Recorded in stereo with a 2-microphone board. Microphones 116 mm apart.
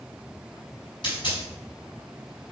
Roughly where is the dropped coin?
Left.